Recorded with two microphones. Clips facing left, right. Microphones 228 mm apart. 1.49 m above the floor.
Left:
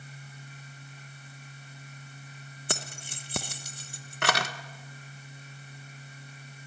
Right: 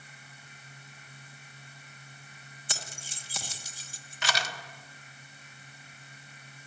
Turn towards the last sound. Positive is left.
turn(degrees=60)  # may be behind; listen again after turning